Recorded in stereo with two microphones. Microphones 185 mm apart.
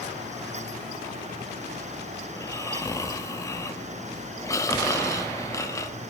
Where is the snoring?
15° left (ahead or behind), 0.7 m.